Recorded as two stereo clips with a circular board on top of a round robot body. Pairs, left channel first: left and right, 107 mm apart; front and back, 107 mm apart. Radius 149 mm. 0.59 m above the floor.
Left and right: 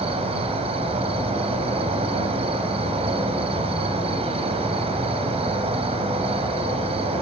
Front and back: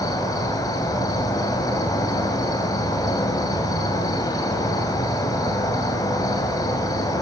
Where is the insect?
60° right, 2.0 m.